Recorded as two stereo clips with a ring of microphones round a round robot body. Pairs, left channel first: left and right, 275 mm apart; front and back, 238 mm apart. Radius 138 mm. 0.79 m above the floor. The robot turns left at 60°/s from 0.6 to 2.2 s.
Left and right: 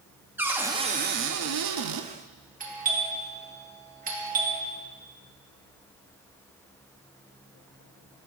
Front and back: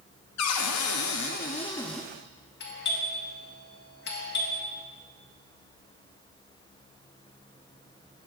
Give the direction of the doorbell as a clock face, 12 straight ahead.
1 o'clock.